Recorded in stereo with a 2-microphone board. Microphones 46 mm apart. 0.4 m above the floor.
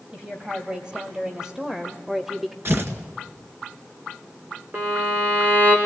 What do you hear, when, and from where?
0.1 s a woman speaking: 20° right (ahead or behind), 2 m; by 2.5 s centre (ahead or behind), 1.0 m
2.6 s tearing paper: 55° right (ahead or behind), 1.9 m
4.7 s a violin: 35° right (ahead or behind), 4.5 m